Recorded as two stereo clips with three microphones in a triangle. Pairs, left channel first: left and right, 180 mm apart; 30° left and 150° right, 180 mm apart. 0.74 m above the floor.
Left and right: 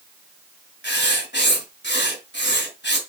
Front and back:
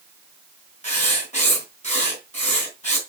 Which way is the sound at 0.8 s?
80° left.